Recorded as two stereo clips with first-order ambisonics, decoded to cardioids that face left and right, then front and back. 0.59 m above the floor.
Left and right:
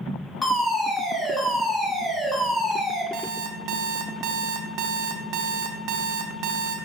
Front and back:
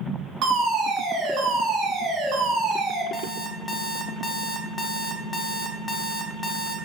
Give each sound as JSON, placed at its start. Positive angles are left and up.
{"t": 0.4, "sound": "a fire alarm", "azimuth_deg": 165, "distance_m": 2.5}
{"t": 3.1, "sound": "an alarm clock", "azimuth_deg": -70, "distance_m": 0.7}